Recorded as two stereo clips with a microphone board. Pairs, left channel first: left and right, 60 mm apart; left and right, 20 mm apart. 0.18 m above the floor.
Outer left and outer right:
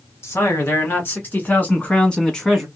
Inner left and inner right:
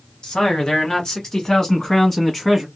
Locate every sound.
0.2 s a man speaking: 45° left (ahead or behind), 2.0 m; by 2.7 s 5° left (ahead or behind), 1.3 m